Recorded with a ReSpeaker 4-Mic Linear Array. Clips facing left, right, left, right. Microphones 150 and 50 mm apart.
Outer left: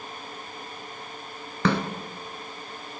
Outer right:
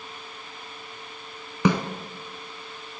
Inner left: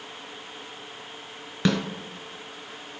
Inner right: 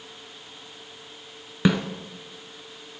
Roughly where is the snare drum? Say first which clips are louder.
Outer right 2 dB, inner right 2 dB; centre.